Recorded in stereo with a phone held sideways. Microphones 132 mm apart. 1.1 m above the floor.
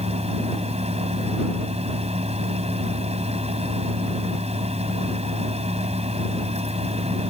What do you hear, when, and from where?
0.0 s a fan: 55° right (ahead or behind)